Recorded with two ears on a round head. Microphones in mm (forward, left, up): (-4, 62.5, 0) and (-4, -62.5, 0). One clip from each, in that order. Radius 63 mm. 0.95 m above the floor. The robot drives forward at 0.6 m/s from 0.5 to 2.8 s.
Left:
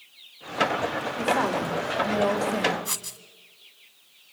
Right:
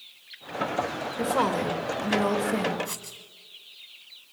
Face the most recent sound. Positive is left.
turn(degrees=30)  # may be behind; listen again after turning